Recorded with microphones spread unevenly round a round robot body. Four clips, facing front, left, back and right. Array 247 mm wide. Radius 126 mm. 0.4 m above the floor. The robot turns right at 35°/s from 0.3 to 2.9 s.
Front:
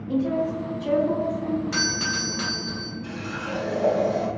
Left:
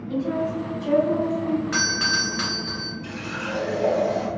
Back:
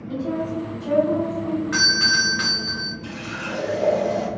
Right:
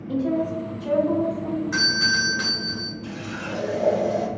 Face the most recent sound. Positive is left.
turn(degrees=-140)